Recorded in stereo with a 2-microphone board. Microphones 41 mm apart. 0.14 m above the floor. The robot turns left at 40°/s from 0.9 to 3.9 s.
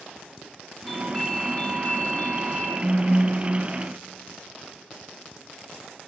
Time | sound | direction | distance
0.9 | a doorbell | 165° left | 3 m
2.8 | a phone buzzing | 140° right | 3.5 m